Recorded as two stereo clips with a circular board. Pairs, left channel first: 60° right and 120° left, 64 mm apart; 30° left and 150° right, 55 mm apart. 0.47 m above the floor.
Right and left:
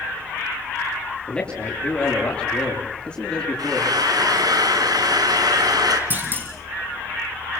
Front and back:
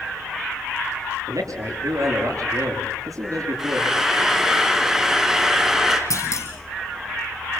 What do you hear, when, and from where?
1.3 s a man speaking: 135° right, 8.5 m
3.6 s frying: 130° left, 3.5 m
6.1 s a clunk: 60° left, 5.5 m